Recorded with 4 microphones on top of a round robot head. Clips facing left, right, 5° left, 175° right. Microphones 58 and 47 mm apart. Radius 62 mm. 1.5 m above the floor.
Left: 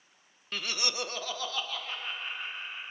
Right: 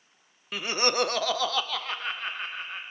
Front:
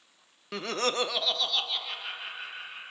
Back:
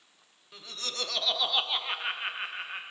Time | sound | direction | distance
0.5 | laughter | 10° right | 0.7 m